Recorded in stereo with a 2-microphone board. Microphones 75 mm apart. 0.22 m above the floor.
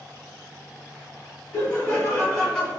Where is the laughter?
25° left (ahead or behind), 1.4 m; by 2.7 s 10° right (ahead or behind), 1.4 m.